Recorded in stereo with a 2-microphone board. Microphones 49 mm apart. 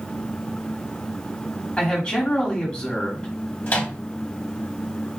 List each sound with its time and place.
1.8 s a man speaking: 20° left (ahead or behind), 1.4 m
3.7 s a microwave: 35° left (ahead or behind), 1.0 m